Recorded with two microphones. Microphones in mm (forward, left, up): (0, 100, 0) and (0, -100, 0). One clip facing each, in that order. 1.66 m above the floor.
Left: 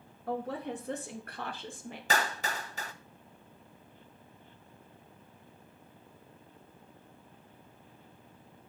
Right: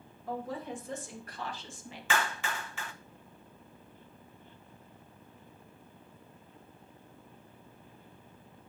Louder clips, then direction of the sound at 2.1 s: Left 1 dB; 40° left (ahead or behind).